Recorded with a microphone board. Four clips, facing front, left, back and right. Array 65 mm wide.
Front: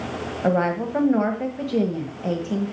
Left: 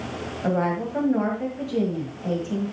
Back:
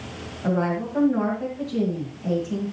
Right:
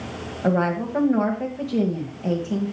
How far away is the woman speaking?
About 1.6 m.